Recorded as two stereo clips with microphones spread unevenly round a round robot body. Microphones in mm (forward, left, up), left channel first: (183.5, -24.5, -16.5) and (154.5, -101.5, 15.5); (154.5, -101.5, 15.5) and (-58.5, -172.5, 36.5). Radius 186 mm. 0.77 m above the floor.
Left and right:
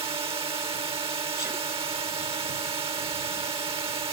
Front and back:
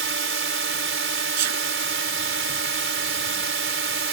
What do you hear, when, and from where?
0.0 s a drone: 140° right
1.4 s a sneeze: 170° left